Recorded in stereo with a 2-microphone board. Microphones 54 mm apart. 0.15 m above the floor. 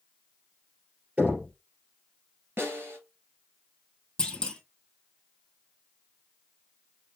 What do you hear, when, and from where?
1.2 s knocking: 25° right (ahead or behind), 2.5 m
2.6 s a snare drum: 40° right (ahead or behind), 2 m
4.2 s a clunk: 15° left (ahead or behind), 0.9 m